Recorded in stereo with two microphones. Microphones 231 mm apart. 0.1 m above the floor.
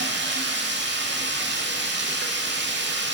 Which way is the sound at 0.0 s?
50° right (ahead or behind).